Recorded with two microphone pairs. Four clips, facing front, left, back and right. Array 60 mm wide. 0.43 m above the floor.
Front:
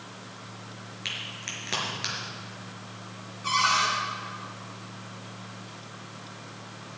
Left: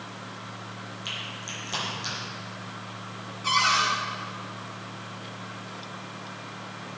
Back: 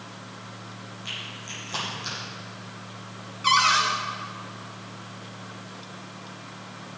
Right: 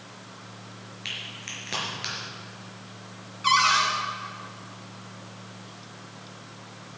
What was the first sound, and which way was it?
A crack, 30° right.